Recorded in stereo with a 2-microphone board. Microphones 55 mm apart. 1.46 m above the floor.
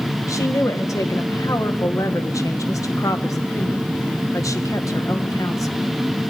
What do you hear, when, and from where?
0.3 s a woman speaking: 80° left, 1.6 m